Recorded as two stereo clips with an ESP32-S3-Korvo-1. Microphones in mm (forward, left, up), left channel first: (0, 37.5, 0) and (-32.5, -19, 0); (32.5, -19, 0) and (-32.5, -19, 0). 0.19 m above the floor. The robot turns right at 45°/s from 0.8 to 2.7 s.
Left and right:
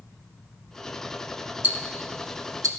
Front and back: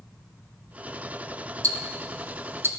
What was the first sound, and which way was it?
Ticking, straight behind.